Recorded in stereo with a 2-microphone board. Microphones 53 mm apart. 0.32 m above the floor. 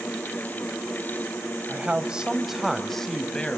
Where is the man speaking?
25° right (ahead or behind), 1.9 m; by 3.6 s 25° left (ahead or behind), 2.5 m.